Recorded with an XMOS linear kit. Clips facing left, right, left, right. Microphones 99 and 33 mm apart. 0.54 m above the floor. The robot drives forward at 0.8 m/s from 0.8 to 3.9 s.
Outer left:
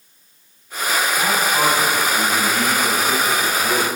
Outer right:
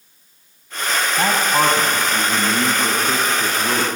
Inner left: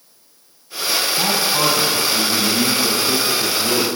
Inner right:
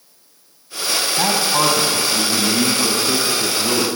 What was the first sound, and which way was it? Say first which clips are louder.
A man speaking: outer right 4 dB, inner right 3 dB; 40° right (ahead or behind).